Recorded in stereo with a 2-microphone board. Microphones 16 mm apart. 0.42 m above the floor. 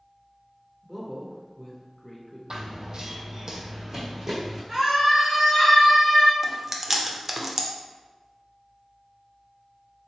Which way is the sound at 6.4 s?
20° right (ahead or behind).